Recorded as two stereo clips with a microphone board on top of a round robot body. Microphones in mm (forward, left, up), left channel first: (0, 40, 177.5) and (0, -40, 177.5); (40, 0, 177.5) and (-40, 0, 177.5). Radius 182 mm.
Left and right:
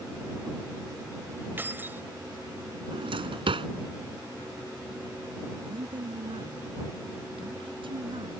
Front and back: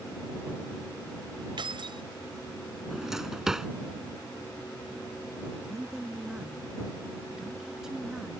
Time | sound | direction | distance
1.6 | keys jangling | 155° right | ?
2.9 | a drawer | 95° right | ?
5.7 | a woman speaking | 95° right | ?